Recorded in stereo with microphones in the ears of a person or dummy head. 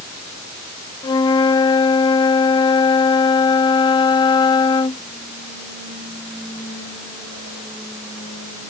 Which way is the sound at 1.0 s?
25° left (ahead or behind).